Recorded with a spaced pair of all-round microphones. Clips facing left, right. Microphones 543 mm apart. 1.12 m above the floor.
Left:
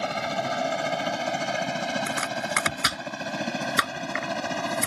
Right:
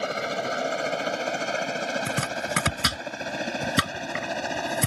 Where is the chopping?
55° right (ahead or behind).